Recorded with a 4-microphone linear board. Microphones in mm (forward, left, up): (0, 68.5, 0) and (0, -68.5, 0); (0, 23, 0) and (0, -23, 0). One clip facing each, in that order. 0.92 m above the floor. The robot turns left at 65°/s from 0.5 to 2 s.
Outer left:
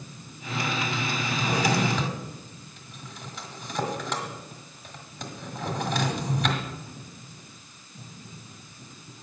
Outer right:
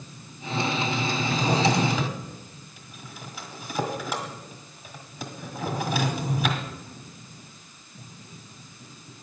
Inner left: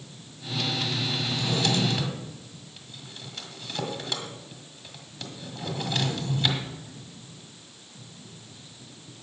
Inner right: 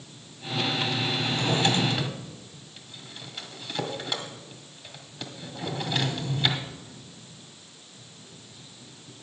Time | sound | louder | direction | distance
1.2 | a drawer | outer right 3 dB, inner right 3 dB | 55° right (ahead or behind) | 1.6 m